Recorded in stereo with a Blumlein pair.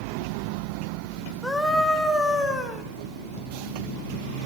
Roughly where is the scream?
Ahead.